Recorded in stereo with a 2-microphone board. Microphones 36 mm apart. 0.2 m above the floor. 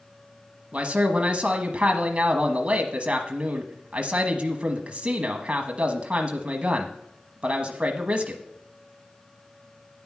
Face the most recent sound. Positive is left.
turn(degrees=-30)  # may be behind; listen again after turning